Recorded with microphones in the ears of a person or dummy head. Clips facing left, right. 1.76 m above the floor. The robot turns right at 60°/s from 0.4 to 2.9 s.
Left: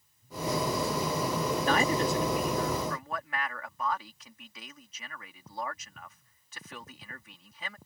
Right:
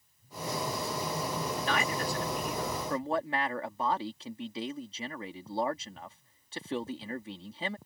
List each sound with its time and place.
1.6 s a man speaking: 135° left; by 7.8 s 150° right